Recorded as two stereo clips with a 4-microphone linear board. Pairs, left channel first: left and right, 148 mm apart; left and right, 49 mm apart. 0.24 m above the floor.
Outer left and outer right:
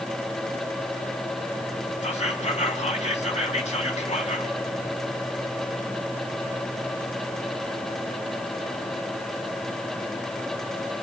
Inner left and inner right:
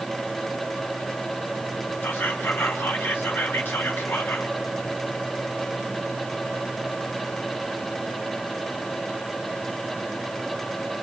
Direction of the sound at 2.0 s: 50° left (ahead or behind).